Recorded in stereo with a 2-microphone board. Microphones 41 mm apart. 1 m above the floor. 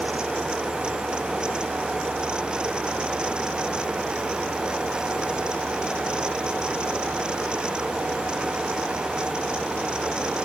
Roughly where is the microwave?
No microwave in this recording.